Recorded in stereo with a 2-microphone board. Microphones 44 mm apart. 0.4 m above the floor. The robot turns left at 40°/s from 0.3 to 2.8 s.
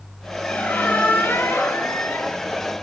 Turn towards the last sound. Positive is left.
turn(degrees=45)